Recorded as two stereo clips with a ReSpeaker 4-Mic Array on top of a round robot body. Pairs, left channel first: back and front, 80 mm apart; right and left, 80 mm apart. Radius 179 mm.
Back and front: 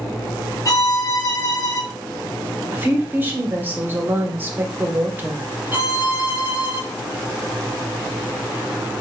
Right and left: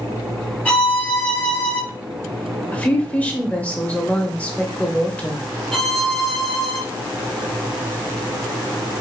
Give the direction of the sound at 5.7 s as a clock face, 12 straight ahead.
12 o'clock.